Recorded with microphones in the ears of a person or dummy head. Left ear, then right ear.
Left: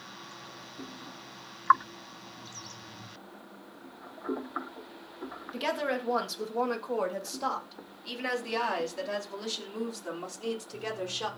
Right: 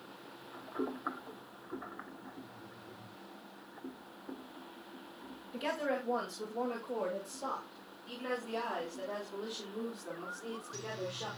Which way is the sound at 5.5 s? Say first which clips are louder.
Left 4 dB; 30° left (ahead or behind).